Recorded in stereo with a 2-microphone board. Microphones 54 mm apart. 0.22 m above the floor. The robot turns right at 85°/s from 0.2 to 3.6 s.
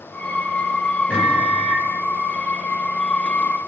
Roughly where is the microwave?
Centre.